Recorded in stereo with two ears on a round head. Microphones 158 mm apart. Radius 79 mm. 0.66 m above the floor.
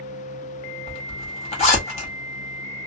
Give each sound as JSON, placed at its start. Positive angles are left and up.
{"t": 0.9, "sound": "a zipper", "side_deg": 35, "distance_m": 1.4}